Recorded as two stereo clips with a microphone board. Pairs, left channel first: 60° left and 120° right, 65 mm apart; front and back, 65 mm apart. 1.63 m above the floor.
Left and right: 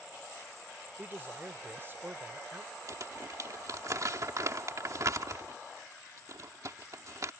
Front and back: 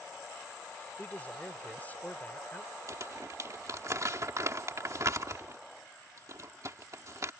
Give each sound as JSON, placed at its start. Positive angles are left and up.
{"t": 1.0, "sound": "a man speaking", "azimuth_deg": -65}
{"t": 2.9, "sound": "crumpling", "azimuth_deg": -145}